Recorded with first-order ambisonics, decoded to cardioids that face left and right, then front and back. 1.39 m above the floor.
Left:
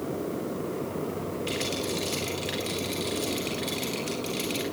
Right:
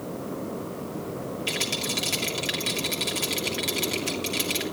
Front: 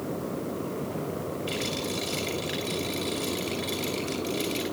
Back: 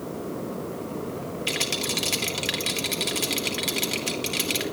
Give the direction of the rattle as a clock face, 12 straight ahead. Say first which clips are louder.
Right 4 dB, back 7 dB; 5 o'clock.